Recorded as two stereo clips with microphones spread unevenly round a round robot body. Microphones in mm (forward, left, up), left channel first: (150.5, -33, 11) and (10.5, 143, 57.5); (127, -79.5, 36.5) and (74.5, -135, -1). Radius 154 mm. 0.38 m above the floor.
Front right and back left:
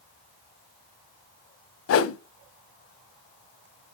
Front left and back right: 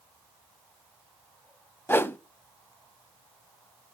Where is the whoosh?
20° right, 0.5 m.